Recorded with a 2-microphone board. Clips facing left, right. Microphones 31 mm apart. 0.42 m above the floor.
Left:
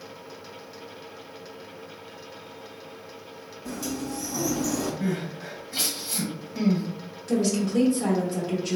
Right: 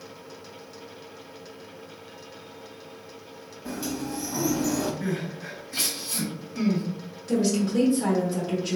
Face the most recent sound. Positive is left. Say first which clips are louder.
# even
turn(degrees=-5)  # may be behind; listen again after turning